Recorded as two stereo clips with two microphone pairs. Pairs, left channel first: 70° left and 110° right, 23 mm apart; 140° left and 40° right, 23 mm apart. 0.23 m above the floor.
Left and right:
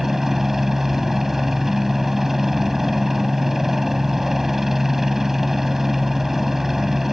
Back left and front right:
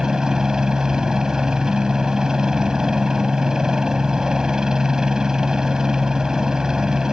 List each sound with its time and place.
0.0 s a helicopter: 50° right